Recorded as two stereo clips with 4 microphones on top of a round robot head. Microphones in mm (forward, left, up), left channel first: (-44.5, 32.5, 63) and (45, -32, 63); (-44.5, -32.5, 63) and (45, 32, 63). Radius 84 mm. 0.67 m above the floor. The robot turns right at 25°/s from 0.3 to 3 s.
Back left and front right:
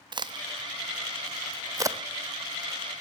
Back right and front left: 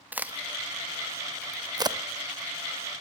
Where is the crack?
30° right, 0.6 m; by 2.0 s 10° left, 0.6 m.